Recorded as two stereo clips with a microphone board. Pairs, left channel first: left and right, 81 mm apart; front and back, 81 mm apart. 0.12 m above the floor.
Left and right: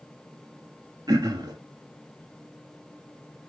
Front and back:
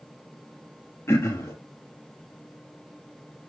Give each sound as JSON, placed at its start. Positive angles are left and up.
{"t": 1.1, "sound": "throat clearing", "azimuth_deg": -55, "distance_m": 1.3}